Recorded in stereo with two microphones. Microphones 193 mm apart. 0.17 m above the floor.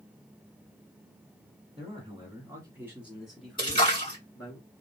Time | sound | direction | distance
1.8 | a man speaking | 30° right (ahead or behind) | 1.5 m
3.6 | a splash | 25° left (ahead or behind) | 2 m